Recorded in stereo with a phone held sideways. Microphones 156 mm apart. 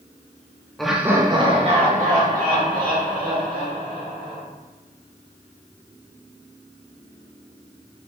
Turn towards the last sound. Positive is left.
turn(degrees=-75)  # may be behind; listen again after turning